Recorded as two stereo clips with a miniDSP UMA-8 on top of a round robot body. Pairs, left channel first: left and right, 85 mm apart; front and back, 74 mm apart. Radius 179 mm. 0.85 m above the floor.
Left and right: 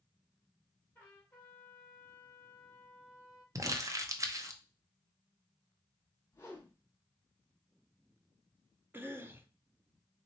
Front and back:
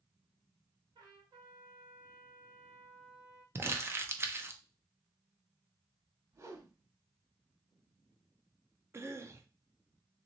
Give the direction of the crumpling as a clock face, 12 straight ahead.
4 o'clock.